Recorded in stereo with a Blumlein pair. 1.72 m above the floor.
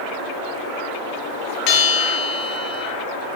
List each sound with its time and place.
1.7 s a bell: 40° left, 4.5 m